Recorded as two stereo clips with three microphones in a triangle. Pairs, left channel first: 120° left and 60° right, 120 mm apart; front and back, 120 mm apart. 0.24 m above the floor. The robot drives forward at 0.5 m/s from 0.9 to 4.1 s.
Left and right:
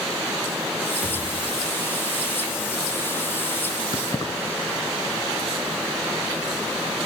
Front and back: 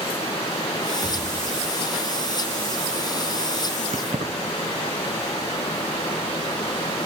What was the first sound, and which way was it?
A thud, 70° right.